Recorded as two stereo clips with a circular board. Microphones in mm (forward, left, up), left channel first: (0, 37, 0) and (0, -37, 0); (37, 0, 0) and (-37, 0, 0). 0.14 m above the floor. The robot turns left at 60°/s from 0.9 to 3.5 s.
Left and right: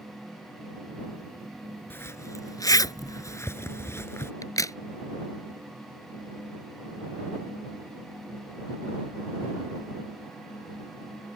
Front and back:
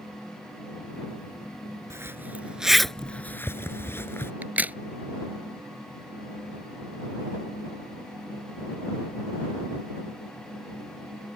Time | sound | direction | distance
1.9 | a zipper | 145° left | ?
4.4 | a crack | 115° left | ?